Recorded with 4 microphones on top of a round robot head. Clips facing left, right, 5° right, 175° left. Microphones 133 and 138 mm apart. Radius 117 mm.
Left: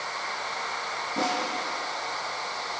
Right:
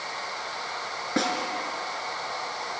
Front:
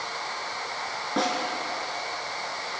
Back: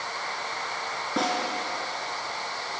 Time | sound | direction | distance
1.2 | a snare drum | 95° right | 4.5 m